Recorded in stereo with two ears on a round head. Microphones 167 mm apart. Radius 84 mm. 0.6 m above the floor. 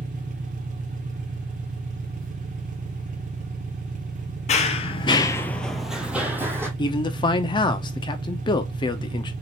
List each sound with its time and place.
0.0 s an engine running: 45° right (ahead or behind), 1.0 m
4.5 s running footsteps: 35° left (ahead or behind), 0.8 m; by 6.7 s 15° right (ahead or behind), 1.3 m
6.8 s a man speaking: 25° left (ahead or behind), 0.6 m